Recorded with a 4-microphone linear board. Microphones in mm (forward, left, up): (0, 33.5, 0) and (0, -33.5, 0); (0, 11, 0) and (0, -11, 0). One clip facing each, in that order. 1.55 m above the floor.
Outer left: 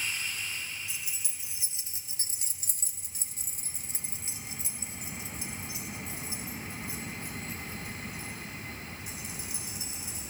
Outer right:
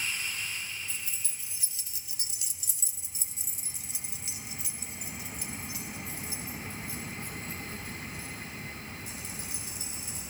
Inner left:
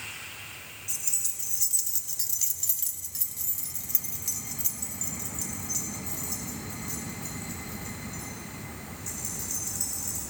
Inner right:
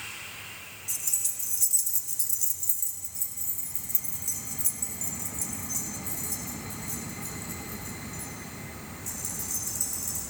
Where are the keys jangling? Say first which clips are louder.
Even, even; 10° left (ahead or behind), 1.3 m; by 10.2 s 15° left (ahead or behind), 4.5 m.